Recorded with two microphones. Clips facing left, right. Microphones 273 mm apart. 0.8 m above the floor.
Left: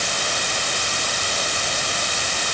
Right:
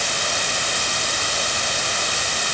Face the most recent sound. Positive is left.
No sound to turn to.